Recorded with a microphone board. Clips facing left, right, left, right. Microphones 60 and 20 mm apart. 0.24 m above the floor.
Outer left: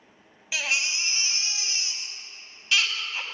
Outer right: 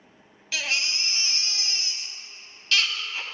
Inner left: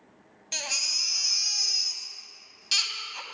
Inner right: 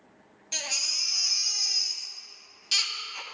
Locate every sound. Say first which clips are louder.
0.5 s a baby crying: outer left 1 dB, inner left 1 dB; 15° left (ahead or behind), 0.9 m